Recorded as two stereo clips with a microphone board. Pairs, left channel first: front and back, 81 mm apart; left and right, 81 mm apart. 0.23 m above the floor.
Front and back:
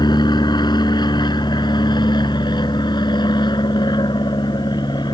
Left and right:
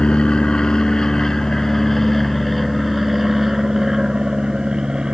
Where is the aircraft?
15° left; by 5.2 s 10° right.